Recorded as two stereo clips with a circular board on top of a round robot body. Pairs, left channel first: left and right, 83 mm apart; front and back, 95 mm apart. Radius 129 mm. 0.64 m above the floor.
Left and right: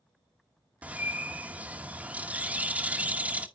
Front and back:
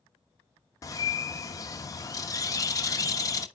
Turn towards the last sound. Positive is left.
turn(degrees=-25)